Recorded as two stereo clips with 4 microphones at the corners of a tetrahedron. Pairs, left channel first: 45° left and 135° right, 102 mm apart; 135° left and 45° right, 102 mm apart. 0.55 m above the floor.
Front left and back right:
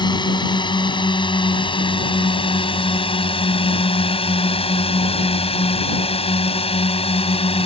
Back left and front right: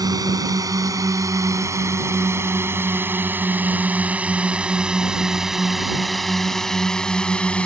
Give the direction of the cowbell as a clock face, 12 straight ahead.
I don't hear a cowbell.